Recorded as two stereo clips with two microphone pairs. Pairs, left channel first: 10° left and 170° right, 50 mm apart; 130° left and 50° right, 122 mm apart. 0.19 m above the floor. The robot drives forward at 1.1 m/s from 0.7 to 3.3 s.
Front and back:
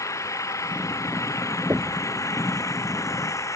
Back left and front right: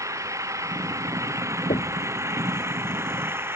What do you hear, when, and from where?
0.0 s an engine running: 15° left; by 3.5 s 20° left
1.7 s knocking: 145° left; by 2.1 s 150° left